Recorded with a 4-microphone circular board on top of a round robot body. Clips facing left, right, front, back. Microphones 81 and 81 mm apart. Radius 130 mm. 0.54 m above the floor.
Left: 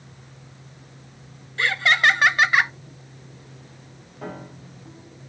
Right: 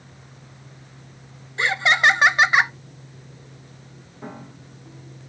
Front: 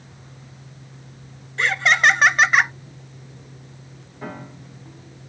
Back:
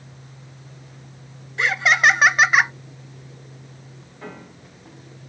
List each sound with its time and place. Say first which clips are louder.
1.6 s laughter: right 1 dB, even; 100° right, 0.7 m
4.2 s a piano: left 2 dB, front 4 dB; 75° left, 2.5 m